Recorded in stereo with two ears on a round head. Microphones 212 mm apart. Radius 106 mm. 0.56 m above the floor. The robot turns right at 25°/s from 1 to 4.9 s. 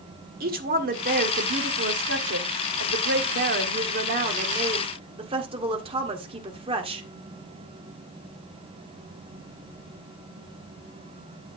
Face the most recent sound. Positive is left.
turn(degrees=-30)